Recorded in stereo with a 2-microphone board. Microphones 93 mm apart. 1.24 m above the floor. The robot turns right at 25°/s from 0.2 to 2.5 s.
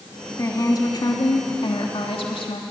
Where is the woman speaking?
35° left, 3 m; by 2.6 s 90° left, 3 m.